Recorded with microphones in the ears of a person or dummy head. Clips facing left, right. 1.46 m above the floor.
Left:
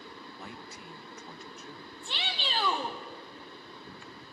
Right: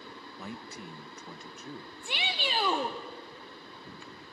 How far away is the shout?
About 1.0 m.